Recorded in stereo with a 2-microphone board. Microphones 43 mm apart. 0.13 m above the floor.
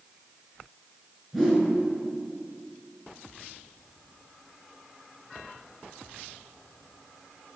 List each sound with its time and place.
1.3 s a whoosh: 5° left (ahead or behind), 2 m